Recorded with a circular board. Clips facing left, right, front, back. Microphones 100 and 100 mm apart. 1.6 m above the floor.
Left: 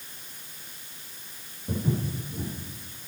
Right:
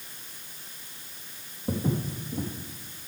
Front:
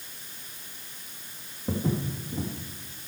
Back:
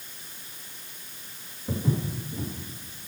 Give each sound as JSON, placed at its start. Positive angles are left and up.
{"t": 1.7, "sound": "footsteps", "azimuth_deg": -50, "distance_m": 3.0}